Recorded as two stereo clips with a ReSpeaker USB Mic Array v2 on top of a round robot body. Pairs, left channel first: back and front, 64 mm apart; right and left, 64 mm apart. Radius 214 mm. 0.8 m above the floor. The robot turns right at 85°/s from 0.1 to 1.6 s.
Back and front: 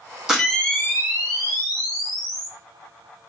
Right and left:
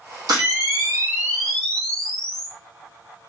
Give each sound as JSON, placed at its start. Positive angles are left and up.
{"t": 0.3, "sound": "a camera shutter", "azimuth_deg": 80, "distance_m": 3.0}